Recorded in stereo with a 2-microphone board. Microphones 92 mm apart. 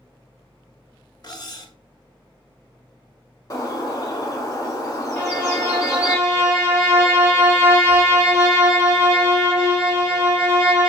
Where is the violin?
5° right (ahead or behind), 2.5 m.